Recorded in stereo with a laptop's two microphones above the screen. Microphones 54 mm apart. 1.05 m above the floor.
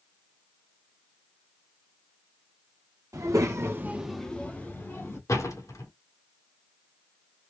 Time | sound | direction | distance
3.1 | a child speaking | 75° right (ahead or behind) | 1.5 m
5.3 | a door slam | 80° left | 1.5 m